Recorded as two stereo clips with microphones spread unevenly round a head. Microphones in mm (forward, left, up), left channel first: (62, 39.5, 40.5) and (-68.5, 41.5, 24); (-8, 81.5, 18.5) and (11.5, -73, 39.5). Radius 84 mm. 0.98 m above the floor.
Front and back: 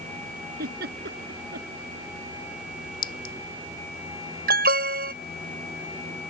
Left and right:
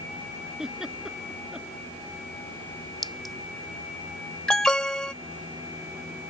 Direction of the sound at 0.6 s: 170° right.